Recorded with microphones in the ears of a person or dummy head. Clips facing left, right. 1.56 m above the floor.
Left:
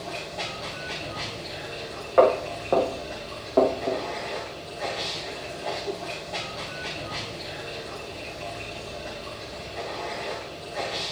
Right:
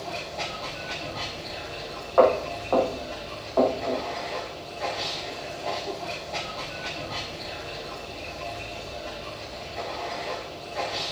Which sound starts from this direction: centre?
Running water, at 0.0 s.